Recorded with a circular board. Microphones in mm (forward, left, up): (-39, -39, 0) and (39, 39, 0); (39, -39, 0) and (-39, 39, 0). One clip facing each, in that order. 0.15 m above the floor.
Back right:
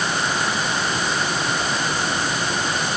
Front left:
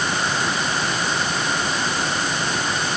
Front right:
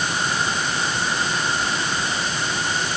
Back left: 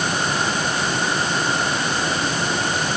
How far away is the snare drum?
No snare drum in this recording.